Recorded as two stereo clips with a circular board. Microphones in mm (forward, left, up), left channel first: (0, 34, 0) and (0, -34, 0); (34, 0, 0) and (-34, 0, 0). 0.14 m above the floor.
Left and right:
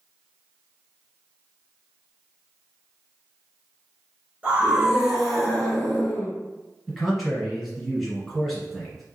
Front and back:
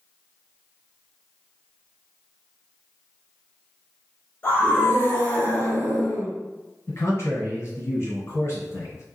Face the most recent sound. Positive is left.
turn(degrees=0)